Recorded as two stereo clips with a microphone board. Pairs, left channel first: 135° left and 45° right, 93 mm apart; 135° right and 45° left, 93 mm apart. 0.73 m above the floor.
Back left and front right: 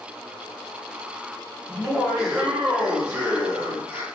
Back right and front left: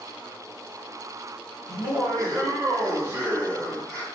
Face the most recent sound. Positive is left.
turn(degrees=-50)